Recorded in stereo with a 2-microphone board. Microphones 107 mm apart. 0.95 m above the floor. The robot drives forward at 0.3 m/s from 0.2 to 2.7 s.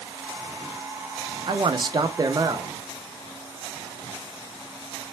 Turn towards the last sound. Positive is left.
turn(degrees=-30)  # may be behind; listen again after turning